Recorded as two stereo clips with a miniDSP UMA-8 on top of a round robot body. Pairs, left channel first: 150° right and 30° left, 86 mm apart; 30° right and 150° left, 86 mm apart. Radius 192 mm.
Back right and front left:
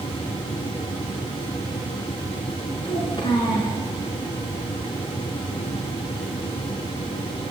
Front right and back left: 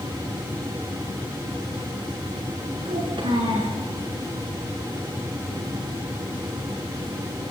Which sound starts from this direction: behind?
A child speaking, at 2.9 s.